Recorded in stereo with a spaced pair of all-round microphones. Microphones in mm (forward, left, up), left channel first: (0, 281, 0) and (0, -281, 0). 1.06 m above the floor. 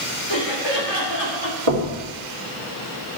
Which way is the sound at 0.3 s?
45° left (ahead or behind).